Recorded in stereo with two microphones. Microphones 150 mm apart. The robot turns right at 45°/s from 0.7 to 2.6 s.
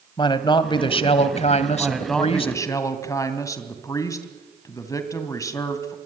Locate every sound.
0.2 s a man speaking: 45° left, 1.7 m; by 2.5 s 125° left, 1.7 m
1.8 s a man speaking: 10° right, 2.5 m; by 6.0 s 25° left, 2.5 m